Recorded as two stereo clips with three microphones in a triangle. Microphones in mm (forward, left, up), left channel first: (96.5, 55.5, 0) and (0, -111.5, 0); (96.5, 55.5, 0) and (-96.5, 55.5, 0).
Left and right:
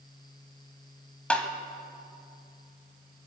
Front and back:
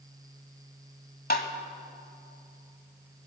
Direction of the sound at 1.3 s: 25° right.